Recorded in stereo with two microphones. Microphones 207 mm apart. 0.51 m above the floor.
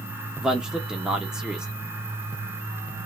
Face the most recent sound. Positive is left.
turn(degrees=-5)  # may be behind; listen again after turning